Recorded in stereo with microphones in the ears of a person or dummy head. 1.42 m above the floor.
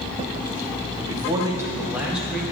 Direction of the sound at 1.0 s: 30° right (ahead or behind).